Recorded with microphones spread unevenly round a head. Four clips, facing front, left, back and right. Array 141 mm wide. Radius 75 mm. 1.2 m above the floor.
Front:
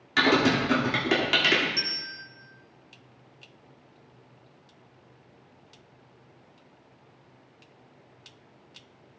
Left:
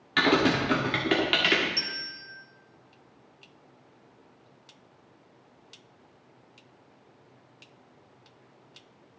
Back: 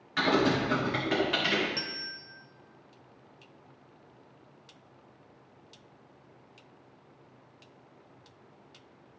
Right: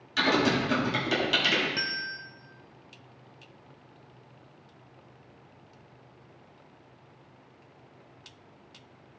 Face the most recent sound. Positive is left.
turn(degrees=-110)